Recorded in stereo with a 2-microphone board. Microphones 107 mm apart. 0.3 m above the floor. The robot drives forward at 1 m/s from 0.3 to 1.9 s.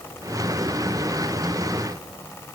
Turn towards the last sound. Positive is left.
No sound to turn to.